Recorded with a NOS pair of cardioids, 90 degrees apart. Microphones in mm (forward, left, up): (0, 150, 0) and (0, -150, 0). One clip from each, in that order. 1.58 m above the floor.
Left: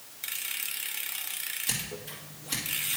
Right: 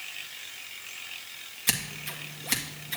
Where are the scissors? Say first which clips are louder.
Right 4 dB; 70° right, 1.9 m.